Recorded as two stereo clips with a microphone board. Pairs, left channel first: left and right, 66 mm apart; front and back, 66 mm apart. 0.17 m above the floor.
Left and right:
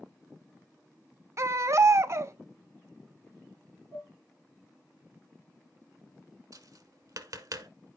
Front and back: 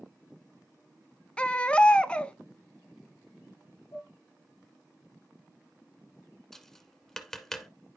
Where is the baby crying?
70° right, 0.5 m.